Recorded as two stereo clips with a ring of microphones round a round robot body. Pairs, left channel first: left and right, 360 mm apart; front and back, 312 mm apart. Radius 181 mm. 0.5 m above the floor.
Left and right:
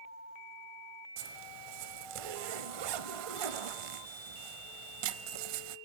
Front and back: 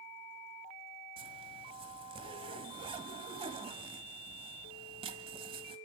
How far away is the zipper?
About 1.2 m.